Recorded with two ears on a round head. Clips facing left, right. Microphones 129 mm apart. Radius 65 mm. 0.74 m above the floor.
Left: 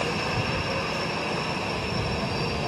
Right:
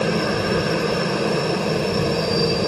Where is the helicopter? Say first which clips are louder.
Right 8 dB; 65° right (ahead or behind).